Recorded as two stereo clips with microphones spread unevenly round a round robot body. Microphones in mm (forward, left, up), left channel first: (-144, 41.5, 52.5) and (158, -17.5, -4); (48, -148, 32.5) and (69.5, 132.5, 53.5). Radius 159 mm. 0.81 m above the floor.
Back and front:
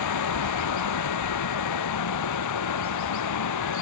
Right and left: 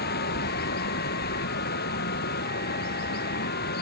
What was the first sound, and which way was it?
Running water, 155° right.